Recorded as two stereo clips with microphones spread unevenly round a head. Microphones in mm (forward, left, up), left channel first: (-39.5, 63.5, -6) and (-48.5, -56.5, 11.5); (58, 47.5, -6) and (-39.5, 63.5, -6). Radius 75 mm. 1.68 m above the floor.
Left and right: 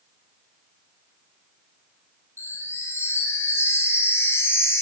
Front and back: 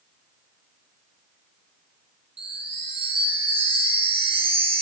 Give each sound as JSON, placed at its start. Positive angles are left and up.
{"t": 2.4, "sound": "a chime", "azimuth_deg": 155, "distance_m": 6.0}